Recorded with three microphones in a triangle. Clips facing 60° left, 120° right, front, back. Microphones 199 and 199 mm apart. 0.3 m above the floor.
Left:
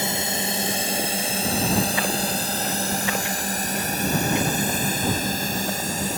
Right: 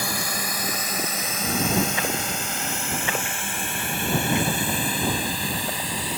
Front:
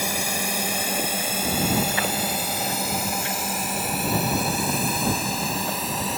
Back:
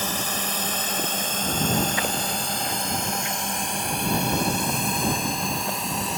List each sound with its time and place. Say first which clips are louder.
0.0 s a drone: left 3 dB, front 2 dB; 60° left; by 6.2 s 90° left